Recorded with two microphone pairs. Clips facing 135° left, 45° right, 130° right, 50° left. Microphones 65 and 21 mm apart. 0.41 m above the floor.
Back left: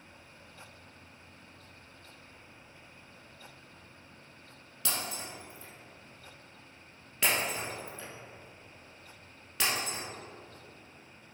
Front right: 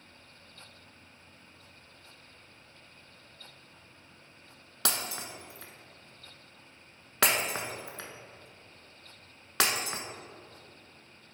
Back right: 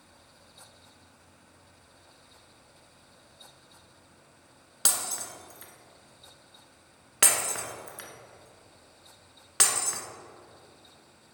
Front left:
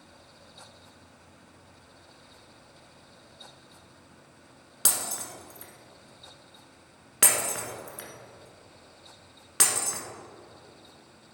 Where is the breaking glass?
55° right, 1.0 m.